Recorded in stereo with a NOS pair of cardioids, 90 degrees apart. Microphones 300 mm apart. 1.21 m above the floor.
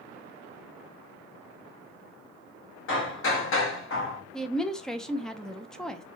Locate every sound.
2.9 s hammering: 45° left, 1.0 m
4.3 s a woman speaking: straight ahead, 0.5 m